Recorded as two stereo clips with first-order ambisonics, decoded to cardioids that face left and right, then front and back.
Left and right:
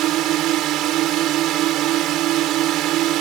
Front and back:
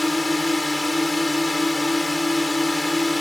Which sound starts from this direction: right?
A drone, at 0.0 s.